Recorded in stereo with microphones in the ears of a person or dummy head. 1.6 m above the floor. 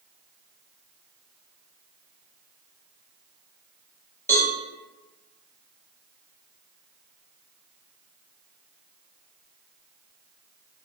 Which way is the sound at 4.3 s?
20° left (ahead or behind).